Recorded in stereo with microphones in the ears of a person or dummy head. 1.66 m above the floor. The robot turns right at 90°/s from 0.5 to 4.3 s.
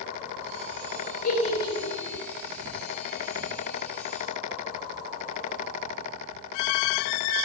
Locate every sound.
1.2 s a giggle: 55° left (ahead or behind), 5 m; by 2.2 s 30° right (ahead or behind), 5 m